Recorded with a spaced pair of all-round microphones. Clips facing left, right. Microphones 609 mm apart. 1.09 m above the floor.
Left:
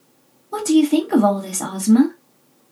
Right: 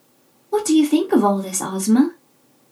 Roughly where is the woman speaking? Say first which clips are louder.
Even; centre.